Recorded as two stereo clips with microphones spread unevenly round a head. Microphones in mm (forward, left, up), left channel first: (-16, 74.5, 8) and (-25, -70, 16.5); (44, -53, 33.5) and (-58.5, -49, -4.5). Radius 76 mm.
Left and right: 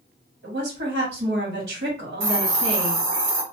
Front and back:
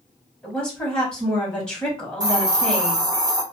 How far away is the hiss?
About 0.9 m.